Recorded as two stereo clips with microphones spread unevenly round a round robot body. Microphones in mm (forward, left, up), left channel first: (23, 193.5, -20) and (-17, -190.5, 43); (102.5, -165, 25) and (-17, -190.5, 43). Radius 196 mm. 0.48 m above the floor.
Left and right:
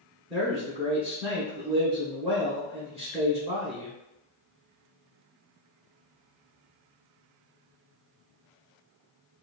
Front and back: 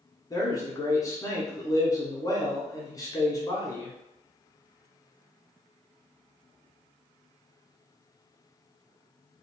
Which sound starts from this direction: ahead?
A man speaking, at 0.3 s.